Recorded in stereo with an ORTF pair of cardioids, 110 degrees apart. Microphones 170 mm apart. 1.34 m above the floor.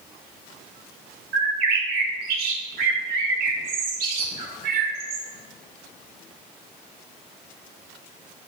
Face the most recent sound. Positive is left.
turn(degrees=-65)